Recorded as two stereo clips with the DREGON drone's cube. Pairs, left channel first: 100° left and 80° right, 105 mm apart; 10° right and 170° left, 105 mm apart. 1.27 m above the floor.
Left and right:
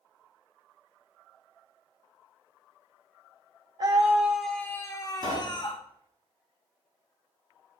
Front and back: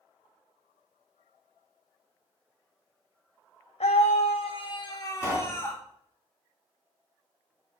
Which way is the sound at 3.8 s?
25° right.